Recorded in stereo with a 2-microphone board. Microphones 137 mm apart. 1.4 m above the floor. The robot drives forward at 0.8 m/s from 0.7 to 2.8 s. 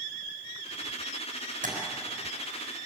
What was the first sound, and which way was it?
Tapping, 90° right.